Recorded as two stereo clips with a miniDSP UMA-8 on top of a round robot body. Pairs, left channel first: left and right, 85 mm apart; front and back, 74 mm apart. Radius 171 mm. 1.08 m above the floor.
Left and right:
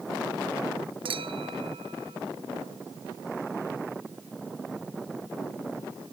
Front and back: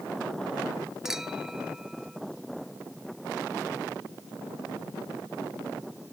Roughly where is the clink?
Right.